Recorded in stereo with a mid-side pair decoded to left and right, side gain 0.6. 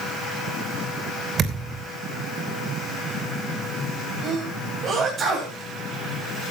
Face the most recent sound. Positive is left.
turn(degrees=-40)